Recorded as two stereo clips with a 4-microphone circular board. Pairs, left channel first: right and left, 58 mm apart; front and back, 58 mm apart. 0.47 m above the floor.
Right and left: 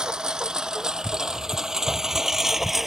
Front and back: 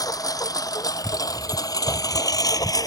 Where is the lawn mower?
10° left; by 2.9 s 5° left.